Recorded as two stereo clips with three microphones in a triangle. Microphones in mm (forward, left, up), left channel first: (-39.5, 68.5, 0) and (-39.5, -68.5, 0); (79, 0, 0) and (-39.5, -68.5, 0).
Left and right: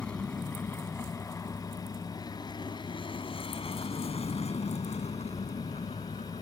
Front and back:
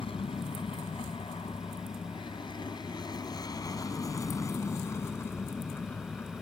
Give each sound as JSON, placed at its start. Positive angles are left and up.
{"t": 0.0, "sound": "an aircraft", "azimuth_deg": 10}